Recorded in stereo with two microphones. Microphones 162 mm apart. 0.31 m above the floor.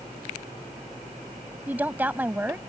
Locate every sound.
1.7 s a woman speaking: 10° right (ahead or behind)